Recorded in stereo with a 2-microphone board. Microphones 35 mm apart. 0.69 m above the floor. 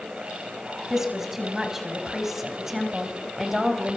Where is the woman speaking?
15° right (ahead or behind), 5.5 m; by 4.0 s 5° right (ahead or behind), 4 m.